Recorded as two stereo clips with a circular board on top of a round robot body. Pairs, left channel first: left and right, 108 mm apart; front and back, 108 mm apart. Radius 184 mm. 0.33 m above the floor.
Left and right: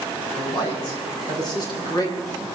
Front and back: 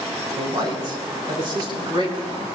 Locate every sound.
0.4 s a man speaking: 130° left, 4.5 m; by 2.5 s 145° left, 6 m